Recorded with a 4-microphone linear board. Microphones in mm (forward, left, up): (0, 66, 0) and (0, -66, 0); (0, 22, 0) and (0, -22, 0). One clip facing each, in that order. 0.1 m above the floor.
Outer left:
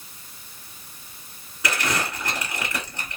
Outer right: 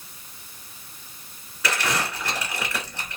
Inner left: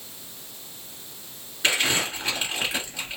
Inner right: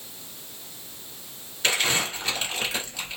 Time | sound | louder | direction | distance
1.6 | crumpling | even, inner left 1 dB | 15° left (ahead or behind) | 1.9 m